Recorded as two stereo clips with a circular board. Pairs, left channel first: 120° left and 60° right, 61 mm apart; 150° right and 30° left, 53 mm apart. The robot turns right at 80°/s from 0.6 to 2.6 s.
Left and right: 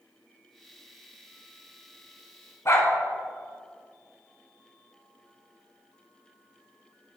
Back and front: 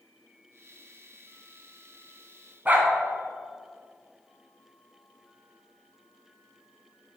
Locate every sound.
2.6 s a dog barking: 85° left, 1.4 m